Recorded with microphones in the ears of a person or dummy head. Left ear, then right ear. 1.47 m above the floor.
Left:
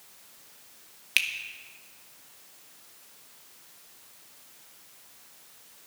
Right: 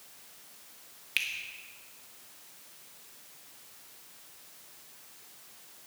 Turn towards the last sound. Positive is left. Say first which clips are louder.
# left 6 dB
turn(degrees=20)  # may be behind; listen again after turning